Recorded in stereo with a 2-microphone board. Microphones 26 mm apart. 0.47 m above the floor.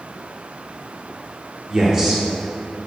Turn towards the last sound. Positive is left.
turn(degrees=-20)  # may be behind; listen again after turning